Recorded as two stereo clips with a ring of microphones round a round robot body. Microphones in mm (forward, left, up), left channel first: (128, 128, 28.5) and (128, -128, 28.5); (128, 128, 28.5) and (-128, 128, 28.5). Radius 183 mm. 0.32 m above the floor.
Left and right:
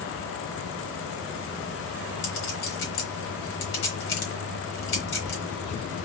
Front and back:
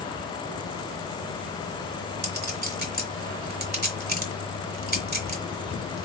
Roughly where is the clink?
Behind left.